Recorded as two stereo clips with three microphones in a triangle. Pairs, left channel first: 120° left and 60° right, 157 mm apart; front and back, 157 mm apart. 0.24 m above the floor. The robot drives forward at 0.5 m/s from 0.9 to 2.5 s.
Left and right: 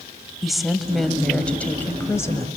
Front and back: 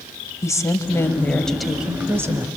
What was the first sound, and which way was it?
A woman speaking, 30° left.